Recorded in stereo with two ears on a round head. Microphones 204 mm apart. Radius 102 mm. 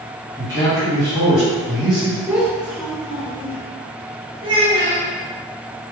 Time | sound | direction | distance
0.4 | a man speaking | centre (ahead or behind) | 1.8 m
2.3 | a child speaking | 5° right (ahead or behind) | 0.9 m
4.4 | a child speaking | 20° right (ahead or behind) | 1.8 m